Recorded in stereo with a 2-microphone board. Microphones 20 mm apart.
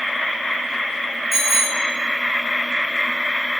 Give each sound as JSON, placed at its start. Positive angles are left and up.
{"t": 1.3, "sound": "a bicycle bell", "side_deg": -20, "distance_m": 4.5}